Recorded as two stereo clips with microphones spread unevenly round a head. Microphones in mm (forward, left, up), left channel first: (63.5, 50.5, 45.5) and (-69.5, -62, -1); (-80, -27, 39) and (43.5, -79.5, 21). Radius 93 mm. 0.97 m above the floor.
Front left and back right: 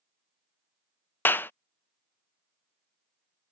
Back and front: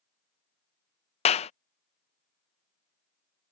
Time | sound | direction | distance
1.2 | a clap | 130° left | ?